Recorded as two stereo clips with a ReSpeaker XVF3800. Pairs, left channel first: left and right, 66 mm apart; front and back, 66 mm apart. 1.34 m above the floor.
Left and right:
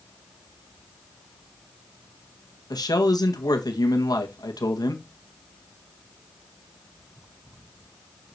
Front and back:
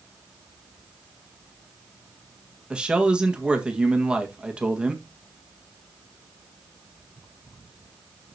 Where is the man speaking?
105° left, 1.7 m.